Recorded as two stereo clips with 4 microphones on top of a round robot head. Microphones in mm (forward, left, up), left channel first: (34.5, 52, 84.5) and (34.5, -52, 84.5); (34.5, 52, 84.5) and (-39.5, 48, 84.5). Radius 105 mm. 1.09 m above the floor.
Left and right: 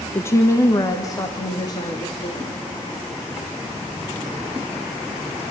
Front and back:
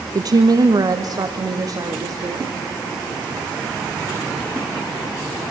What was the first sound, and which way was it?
A woman speaking, 155° left.